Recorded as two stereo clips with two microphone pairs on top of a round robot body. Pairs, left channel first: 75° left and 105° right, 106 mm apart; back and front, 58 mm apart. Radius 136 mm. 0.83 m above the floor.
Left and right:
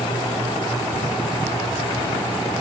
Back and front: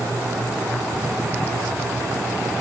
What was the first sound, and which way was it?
Only background noise.